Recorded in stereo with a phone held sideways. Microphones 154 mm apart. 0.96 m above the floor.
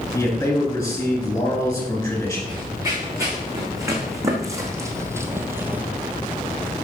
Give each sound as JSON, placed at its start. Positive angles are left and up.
{"t": 0.1, "sound": "a man speaking", "side_deg": 25, "distance_m": 5.5}
{"t": 2.5, "sound": "running footsteps", "side_deg": -20, "distance_m": 5.0}